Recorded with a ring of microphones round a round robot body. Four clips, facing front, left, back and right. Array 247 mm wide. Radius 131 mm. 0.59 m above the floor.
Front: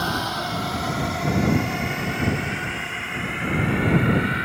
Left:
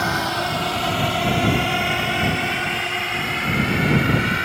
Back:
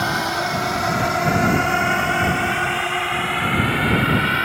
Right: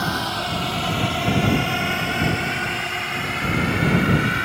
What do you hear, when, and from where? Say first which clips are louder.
0.0 s a drone: left 2 dB, back 4 dB; 135° left; by 4.5 s 170° left